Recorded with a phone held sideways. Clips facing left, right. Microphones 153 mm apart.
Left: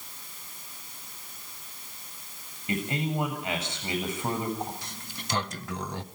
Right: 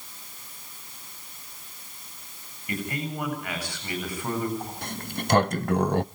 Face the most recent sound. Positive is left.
turn(degrees=-55)  # may be behind; listen again after turning